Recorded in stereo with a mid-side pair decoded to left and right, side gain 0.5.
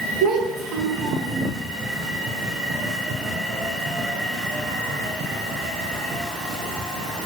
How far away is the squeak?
No squeak in this recording.